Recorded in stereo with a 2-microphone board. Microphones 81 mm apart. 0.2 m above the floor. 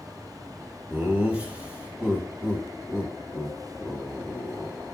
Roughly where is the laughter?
Centre.